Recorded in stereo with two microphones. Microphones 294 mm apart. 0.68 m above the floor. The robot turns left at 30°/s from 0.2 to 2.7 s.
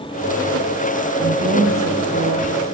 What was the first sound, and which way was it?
A woman speaking, 50° right.